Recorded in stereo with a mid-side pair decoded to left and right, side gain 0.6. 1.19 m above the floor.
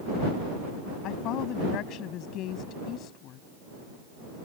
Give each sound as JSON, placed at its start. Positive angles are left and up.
{"t": 1.0, "sound": "a woman speaking", "azimuth_deg": 65}